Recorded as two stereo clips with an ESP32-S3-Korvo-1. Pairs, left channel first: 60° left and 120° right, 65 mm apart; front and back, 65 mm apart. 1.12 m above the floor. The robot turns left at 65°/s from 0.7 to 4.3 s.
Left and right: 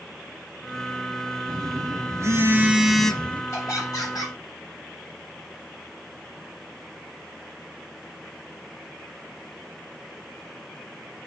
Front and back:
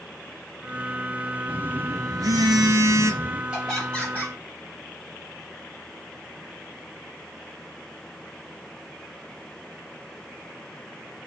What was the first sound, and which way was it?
A phone buzzing, 115° right.